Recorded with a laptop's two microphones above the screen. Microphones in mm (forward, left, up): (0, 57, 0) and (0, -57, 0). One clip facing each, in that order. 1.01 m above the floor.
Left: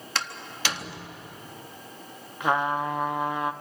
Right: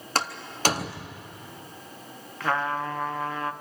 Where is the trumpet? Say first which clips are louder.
Left 2 dB; 15° left (ahead or behind), 0.7 m.